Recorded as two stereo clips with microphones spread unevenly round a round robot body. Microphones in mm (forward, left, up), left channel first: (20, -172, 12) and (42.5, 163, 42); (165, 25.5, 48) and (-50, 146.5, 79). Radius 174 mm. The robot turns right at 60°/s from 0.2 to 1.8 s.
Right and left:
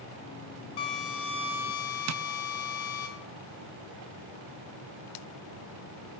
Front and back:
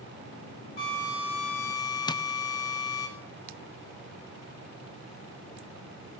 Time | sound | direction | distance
0.8 | a drill | 100° right | 4.5 m
2.1 | tapping | 40° left | 0.6 m